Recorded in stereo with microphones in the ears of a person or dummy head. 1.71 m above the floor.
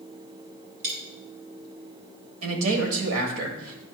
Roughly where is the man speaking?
Right.